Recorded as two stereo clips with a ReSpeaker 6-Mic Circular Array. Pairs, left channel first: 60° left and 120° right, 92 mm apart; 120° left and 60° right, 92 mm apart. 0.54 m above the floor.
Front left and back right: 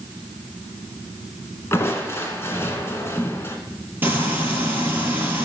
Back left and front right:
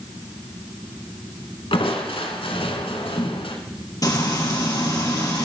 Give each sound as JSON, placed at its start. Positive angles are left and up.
{"t": 1.7, "sound": "crushing", "azimuth_deg": 120, "distance_m": 1.9}
{"t": 4.0, "sound": "frying", "azimuth_deg": 170, "distance_m": 3.0}